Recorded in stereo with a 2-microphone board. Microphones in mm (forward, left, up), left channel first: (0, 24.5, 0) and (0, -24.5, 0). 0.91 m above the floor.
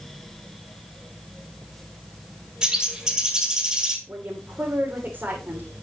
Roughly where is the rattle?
No rattle in this recording.